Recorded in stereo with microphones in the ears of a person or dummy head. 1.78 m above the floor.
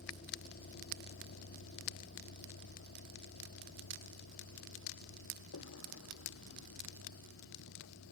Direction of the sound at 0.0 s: 45° left (ahead or behind).